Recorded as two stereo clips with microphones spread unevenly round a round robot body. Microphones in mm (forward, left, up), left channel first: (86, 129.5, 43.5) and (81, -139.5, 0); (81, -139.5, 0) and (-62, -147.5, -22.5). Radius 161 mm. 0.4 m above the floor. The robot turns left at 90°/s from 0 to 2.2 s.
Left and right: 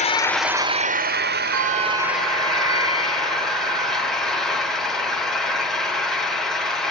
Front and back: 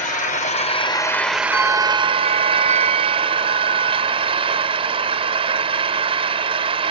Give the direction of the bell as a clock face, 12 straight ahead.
3 o'clock.